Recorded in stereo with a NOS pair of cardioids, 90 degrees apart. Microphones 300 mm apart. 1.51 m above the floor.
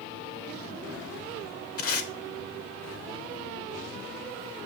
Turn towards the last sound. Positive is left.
turn(degrees=50)